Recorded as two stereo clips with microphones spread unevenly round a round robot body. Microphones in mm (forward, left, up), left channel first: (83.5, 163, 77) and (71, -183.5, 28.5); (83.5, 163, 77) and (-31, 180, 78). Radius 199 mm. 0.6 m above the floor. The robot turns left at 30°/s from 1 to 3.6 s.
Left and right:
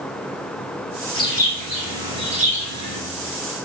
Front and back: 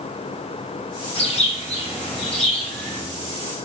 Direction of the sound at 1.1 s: 10° left.